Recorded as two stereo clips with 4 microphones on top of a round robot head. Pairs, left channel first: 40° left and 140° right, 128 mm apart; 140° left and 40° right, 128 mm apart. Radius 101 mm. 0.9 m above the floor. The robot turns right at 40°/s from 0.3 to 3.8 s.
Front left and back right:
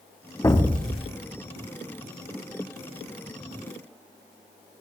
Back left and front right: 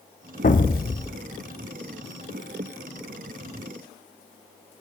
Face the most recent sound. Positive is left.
turn(degrees=-115)